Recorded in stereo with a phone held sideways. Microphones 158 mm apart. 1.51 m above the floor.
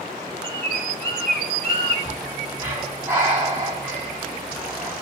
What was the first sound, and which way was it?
A bird, 80° left.